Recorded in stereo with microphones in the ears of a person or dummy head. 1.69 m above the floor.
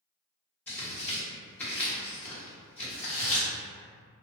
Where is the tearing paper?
10° left (ahead or behind), 1.3 m.